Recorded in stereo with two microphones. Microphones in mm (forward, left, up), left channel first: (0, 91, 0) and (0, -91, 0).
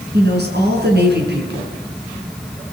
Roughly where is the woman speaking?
Right.